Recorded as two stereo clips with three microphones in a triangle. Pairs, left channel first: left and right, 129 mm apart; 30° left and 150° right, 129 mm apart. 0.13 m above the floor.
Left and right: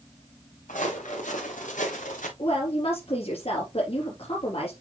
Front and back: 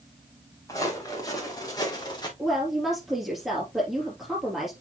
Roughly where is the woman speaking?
Behind left.